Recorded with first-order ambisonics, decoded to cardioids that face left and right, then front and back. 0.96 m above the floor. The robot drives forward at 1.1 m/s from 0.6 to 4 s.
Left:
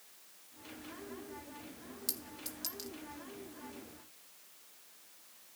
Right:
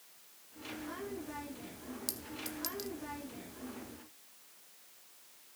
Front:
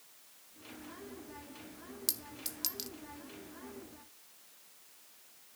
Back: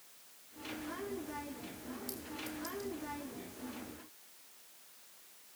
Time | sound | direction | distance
2.1 | a clink | 5° right | 1.5 m